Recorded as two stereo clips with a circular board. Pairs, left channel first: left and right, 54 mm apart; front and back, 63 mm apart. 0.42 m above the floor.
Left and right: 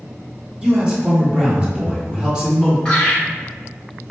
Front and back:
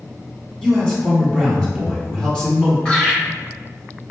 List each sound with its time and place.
0.6 s a man speaking: 50° right, 1.3 m
2.9 s laughter: 40° left, 1.2 m